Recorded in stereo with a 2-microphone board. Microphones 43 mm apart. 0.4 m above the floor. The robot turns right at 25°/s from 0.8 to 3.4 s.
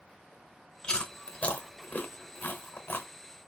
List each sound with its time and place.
0.8 s chewing: 20° left (ahead or behind), 0.9 m; by 3.1 s 50° left (ahead or behind), 0.9 m